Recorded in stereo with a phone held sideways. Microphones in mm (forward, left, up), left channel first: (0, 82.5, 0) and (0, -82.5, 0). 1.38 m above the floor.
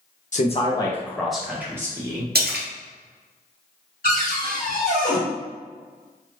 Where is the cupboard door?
60° left (ahead or behind), 1.5 m.